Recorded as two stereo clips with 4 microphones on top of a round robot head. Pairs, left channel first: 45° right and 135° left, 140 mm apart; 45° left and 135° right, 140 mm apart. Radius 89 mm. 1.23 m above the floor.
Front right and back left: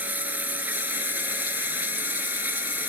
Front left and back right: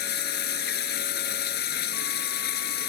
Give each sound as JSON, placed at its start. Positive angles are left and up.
{"t": 0.0, "sound": "running water", "azimuth_deg": 55}